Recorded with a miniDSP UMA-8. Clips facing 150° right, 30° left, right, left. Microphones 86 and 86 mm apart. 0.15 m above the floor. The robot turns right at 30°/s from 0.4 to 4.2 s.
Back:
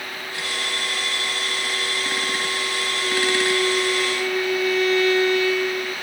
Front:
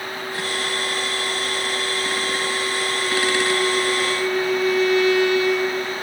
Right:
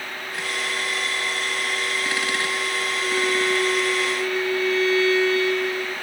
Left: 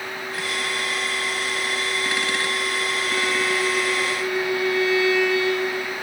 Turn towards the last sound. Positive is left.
turn(degrees=20)